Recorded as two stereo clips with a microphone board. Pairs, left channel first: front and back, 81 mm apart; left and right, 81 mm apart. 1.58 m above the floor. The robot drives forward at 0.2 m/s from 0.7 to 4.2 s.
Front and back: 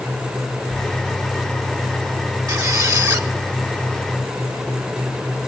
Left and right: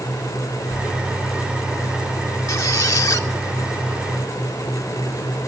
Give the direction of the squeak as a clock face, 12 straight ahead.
7 o'clock.